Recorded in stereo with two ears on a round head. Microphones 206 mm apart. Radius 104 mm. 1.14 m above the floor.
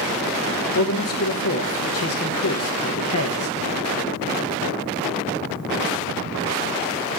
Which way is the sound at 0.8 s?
65° left (ahead or behind).